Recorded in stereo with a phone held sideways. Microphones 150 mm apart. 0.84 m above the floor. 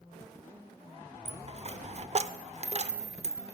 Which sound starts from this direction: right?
A dropped coin, at 1.2 s.